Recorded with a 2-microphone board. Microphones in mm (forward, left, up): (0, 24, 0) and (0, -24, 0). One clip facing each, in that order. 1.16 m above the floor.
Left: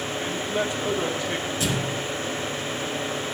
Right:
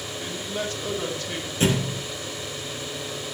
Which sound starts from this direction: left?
A man speaking, at 0.2 s.